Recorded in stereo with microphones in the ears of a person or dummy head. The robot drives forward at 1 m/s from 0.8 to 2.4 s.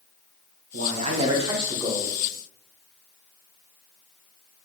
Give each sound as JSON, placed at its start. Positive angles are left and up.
{"t": 0.7, "sound": "a man speaking", "side_deg": -50, "distance_m": 0.8}